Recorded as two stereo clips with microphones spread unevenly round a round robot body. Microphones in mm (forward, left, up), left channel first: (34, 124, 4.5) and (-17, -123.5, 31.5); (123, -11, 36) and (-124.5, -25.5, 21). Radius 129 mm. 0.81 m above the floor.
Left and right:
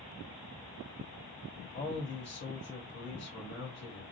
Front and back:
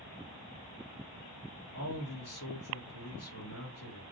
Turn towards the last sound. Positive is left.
turn(degrees=35)